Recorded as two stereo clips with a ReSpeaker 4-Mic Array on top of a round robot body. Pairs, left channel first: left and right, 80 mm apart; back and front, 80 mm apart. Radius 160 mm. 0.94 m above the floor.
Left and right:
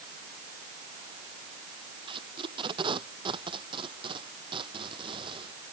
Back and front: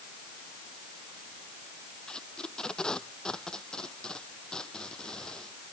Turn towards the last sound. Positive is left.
turn(degrees=-100)